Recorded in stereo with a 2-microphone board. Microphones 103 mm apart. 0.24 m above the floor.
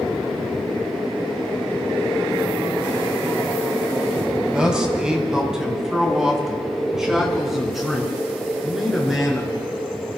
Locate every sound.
4.5 s a man speaking: 10° right (ahead or behind), 1.7 m; by 9.7 s centre (ahead or behind), 4.5 m